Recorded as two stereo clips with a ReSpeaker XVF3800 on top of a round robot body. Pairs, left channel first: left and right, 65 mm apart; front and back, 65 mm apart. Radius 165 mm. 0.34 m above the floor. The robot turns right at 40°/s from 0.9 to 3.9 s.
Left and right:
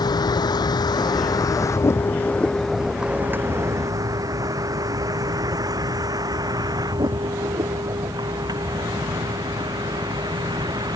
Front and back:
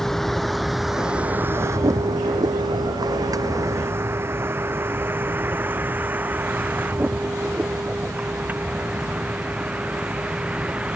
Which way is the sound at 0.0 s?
85° left.